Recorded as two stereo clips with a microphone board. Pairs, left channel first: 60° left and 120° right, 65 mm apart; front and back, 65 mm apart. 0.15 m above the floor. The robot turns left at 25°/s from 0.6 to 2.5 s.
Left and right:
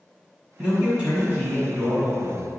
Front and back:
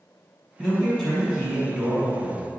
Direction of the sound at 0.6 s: 75° right.